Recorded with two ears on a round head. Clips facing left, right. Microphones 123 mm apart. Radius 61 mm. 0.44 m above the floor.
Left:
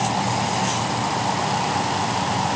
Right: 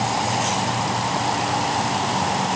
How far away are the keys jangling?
I don't hear keys jangling.